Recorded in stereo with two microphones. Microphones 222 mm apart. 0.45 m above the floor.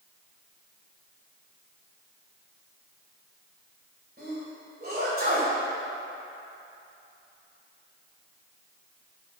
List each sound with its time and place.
4.2 s a sneeze: 45° right (ahead or behind), 2.0 m